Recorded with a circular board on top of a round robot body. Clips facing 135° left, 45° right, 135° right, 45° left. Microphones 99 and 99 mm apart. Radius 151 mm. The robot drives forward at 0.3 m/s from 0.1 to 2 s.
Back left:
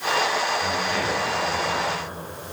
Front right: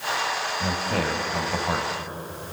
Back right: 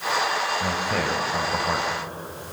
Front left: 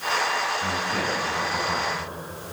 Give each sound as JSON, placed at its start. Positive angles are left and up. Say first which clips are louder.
{"t": 0.6, "sound": "a man speaking", "louder": "back left 1 dB, back right 2 dB", "azimuth_deg": -95, "distance_m": 5.5}